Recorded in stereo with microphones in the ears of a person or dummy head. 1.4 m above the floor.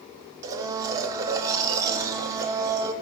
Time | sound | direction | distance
0.4 | a blender | 20° right (ahead or behind) | 0.8 m